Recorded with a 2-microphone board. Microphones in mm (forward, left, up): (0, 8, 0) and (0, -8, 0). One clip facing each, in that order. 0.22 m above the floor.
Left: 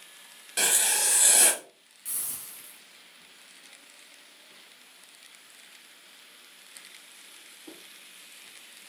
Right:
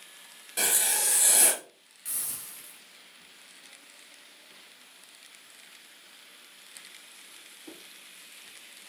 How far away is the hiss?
About 1.0 m.